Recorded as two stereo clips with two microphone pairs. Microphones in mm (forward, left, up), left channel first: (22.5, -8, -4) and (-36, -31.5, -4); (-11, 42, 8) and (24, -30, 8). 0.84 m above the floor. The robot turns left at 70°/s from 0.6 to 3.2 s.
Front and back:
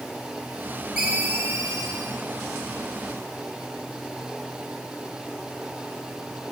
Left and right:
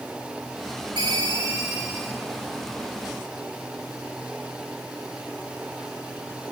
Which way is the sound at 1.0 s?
75° right.